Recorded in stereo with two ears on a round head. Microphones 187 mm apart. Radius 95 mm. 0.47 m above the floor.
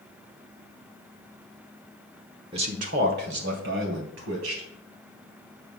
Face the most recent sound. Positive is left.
turn(degrees=-65)  # may be behind; listen again after turning